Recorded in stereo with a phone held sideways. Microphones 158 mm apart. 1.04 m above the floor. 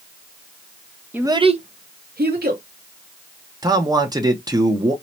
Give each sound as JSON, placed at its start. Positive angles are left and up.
{"t": 1.1, "sound": "a child speaking", "side_deg": -10, "distance_m": 0.6}
{"t": 3.6, "sound": "a man speaking", "side_deg": -25, "distance_m": 0.8}